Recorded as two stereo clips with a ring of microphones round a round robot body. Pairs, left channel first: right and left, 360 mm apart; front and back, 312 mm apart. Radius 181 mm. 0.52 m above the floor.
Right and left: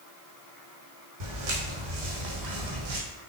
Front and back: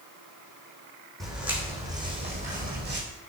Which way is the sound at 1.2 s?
90° left.